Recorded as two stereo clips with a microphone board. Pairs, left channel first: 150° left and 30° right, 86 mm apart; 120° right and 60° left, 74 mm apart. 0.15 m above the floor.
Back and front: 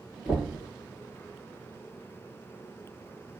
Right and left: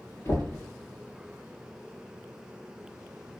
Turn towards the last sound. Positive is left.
turn(degrees=-110)